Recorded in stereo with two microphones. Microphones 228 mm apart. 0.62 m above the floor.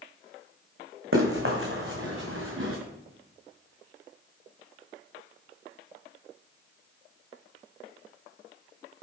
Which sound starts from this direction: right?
Running footsteps, at 1.1 s.